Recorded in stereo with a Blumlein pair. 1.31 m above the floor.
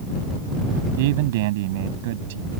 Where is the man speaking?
50° right.